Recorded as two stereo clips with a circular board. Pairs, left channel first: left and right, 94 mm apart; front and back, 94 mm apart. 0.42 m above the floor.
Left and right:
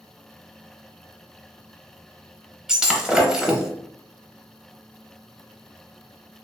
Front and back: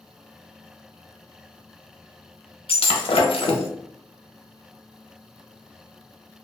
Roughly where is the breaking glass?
Ahead.